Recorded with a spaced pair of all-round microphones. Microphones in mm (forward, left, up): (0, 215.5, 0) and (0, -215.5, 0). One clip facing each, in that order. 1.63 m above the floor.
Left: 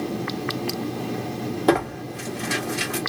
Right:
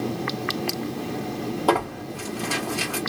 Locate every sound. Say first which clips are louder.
1.7 s tearing paper: left 5 dB; 35° left (ahead or behind), 1.3 m